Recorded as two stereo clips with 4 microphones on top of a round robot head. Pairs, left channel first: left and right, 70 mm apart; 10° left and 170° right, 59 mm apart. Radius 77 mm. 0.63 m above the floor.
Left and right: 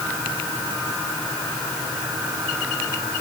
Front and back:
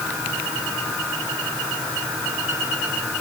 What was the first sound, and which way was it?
Only background noise.